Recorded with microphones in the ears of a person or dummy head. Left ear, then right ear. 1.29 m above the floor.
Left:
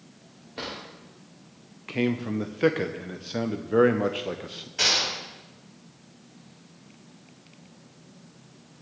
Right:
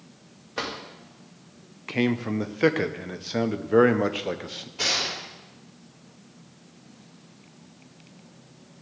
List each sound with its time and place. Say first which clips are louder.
0.6 s a drawer: right 4 dB; 40° right (ahead or behind), 2.5 m
1.9 s a man speaking: right 2 dB; 15° right (ahead or behind), 0.7 m
4.8 s a gunshot: left 2 dB; 60° left (ahead or behind), 6.5 m